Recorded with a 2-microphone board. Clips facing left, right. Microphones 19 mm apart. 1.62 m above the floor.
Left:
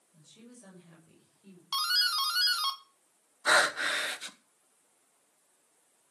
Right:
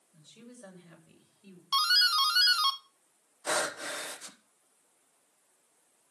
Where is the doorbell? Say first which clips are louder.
Right 4 dB; 10° right (ahead or behind), 0.9 m.